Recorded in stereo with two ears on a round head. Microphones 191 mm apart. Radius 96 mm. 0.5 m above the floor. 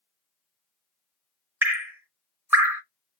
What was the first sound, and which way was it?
Dripping, 10° right (ahead or behind).